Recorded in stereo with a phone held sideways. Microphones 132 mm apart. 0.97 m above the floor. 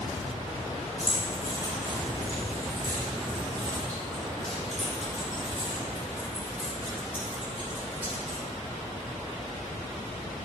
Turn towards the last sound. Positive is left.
turn(degrees=-15)  # may be behind; listen again after turning